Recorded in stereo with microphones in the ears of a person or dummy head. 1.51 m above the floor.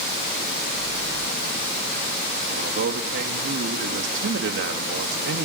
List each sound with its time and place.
2.5 s a man speaking: 65° right (ahead or behind), 1.9 m